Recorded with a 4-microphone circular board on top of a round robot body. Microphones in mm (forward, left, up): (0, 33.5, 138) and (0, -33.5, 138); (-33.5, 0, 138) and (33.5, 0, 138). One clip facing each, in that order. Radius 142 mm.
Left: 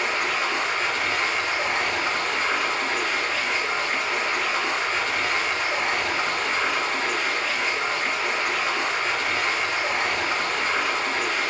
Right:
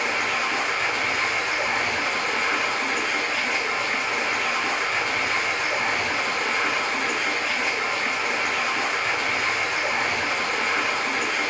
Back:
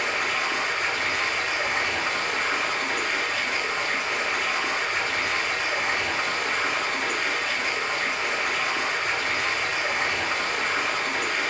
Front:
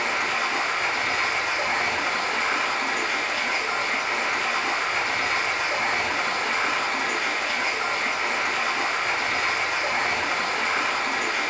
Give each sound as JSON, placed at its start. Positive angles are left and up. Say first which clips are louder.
{"t": 0.0, "sound": "running water", "louder": "even, front 1 dB", "azimuth_deg": -10, "distance_m": 2.5}